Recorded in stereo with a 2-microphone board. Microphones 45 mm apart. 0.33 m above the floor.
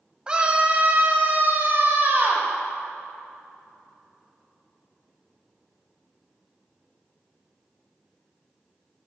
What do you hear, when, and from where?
0.3 s a scream: 20° right (ahead or behind), 2.0 m; by 2.5 s 50° right (ahead or behind), 2.5 m